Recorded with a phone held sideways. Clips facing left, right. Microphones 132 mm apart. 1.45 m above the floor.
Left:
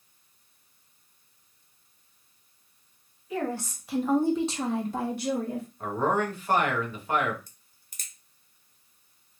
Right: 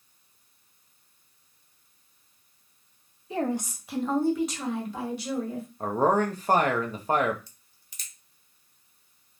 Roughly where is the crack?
Left.